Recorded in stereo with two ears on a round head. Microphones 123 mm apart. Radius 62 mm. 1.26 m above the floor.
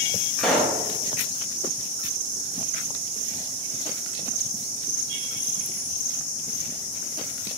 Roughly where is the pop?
Centre.